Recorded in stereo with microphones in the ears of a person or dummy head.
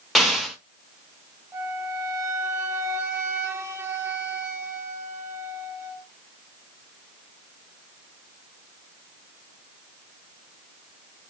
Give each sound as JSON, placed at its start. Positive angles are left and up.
{"t": 0.1, "sound": "an explosion", "side_deg": 0, "distance_m": 0.6}
{"t": 1.5, "sound": "a flute", "side_deg": -15, "distance_m": 0.6}